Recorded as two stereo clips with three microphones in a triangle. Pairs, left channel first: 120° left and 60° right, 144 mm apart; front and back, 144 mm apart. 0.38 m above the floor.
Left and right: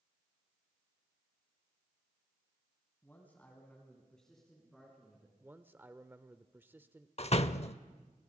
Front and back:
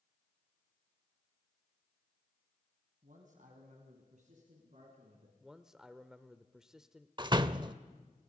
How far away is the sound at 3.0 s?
About 3 m.